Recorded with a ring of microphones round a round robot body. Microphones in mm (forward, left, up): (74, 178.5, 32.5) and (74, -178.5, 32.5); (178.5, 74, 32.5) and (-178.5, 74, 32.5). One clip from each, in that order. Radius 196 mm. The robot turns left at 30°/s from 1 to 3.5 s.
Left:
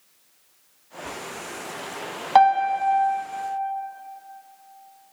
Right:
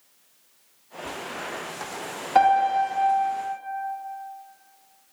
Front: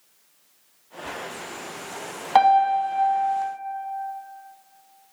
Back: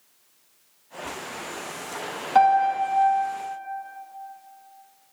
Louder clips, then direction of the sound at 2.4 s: Left 2 dB, front 1 dB; 50° left.